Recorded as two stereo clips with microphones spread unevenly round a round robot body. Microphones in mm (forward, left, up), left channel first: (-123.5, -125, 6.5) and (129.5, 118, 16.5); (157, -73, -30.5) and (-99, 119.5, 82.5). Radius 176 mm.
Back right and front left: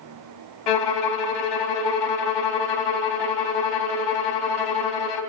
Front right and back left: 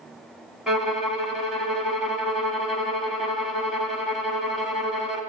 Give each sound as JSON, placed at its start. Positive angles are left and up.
{"t": 0.7, "sound": "a violin", "azimuth_deg": -120, "distance_m": 1.9}